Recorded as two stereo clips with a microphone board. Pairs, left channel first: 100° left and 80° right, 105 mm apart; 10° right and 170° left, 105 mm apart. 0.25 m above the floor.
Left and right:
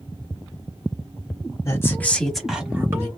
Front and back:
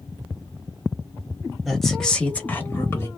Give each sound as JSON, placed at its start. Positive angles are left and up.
{"t": 1.6, "sound": "a woman speaking", "azimuth_deg": 80, "distance_m": 1.2}